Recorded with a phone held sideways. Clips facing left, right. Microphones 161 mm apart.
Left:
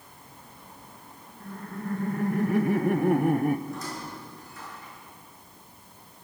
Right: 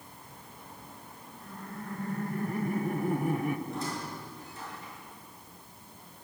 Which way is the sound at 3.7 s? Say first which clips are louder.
Even; 30° right (ahead or behind).